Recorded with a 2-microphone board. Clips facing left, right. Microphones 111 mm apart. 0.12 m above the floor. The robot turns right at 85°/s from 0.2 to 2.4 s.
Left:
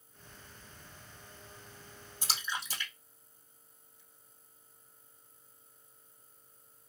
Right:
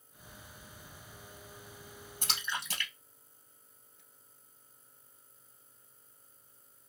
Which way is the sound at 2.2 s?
55° right (ahead or behind).